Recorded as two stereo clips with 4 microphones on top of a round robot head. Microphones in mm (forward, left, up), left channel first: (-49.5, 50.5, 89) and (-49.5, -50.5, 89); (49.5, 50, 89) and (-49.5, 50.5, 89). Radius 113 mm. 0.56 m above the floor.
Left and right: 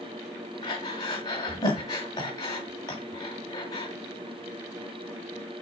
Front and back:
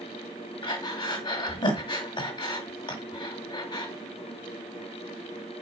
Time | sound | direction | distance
0.6 | breathing | 35° left | 1.9 m